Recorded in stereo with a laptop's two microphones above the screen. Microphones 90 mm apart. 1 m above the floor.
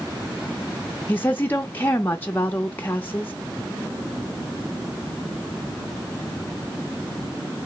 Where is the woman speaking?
25° left (ahead or behind), 0.6 m.